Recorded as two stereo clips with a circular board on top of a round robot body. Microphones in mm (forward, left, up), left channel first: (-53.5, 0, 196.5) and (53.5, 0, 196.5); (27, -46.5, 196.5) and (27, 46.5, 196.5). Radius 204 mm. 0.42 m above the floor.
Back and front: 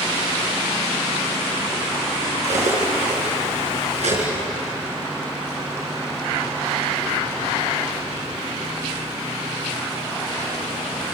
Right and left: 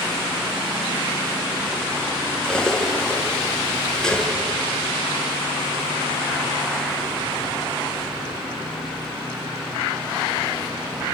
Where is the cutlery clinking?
5° right, 6 m.